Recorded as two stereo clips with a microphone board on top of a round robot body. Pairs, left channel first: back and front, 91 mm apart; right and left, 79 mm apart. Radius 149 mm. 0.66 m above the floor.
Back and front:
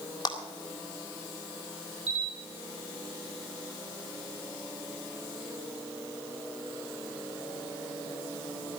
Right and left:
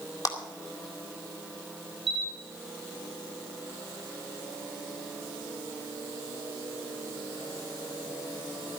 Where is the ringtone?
No ringtone in this recording.